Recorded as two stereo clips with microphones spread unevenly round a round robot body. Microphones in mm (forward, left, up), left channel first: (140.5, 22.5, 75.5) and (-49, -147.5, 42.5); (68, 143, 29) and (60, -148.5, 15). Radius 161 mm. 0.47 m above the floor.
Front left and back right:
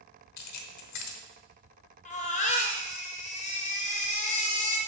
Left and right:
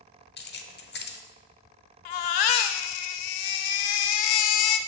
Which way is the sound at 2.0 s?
110° left.